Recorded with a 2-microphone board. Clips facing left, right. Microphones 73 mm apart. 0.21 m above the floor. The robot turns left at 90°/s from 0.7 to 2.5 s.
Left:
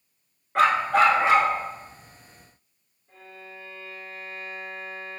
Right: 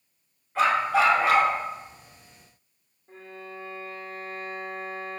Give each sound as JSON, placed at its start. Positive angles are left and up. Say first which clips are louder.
{"t": 0.6, "sound": "a dog barking", "louder": "left 2 dB", "azimuth_deg": 80, "distance_m": 0.7}
{"t": 3.1, "sound": "a violin", "louder": "right 3 dB", "side_deg": -40, "distance_m": 0.7}